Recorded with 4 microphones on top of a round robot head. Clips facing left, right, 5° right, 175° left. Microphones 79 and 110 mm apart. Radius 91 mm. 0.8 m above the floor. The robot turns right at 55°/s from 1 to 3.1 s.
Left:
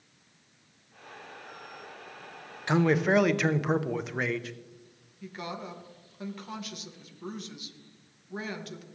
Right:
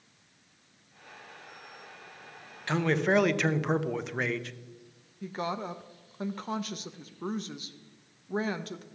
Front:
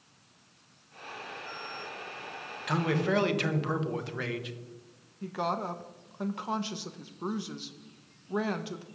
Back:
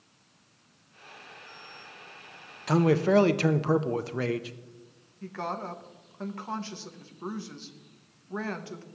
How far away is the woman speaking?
About 0.7 m.